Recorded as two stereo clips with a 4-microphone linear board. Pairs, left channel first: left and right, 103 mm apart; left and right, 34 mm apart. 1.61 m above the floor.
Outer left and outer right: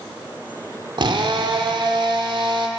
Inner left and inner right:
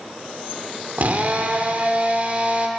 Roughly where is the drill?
Right.